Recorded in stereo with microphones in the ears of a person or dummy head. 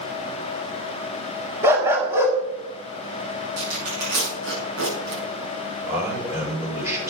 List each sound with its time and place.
1.6 s a dog barking: 20° right (ahead or behind), 1.8 m
3.6 s tearing paper: 75° right (ahead or behind), 7.5 m
5.9 s a man speaking: 15° right (ahead or behind), 6 m